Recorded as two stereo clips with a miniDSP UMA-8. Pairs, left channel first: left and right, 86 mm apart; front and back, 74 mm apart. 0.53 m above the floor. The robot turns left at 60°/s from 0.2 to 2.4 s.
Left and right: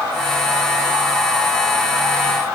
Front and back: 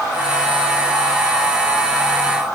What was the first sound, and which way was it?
Only background noise.